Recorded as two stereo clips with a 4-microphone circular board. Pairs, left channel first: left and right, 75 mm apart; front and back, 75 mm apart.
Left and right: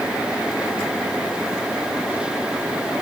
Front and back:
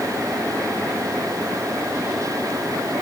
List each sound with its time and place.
Only background noise.